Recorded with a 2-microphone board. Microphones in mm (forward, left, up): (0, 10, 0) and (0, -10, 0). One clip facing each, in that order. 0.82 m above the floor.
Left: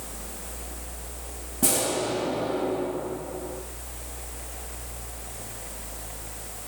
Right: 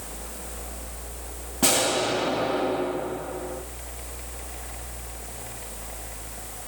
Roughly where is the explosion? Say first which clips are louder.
Right 3 dB; right.